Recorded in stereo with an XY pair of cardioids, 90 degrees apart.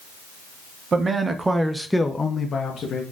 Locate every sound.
0.9 s a man speaking: 45° right, 0.8 m; by 3.0 s 65° left, 0.9 m